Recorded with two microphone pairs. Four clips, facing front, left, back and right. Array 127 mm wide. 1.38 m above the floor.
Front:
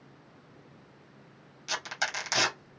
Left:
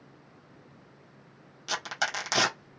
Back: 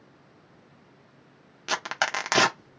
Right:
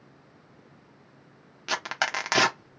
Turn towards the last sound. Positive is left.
turn(degrees=-155)